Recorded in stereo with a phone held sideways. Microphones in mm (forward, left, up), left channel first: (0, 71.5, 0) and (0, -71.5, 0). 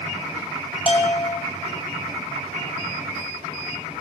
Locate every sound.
0.9 s a bell: 40° left (ahead or behind), 0.8 m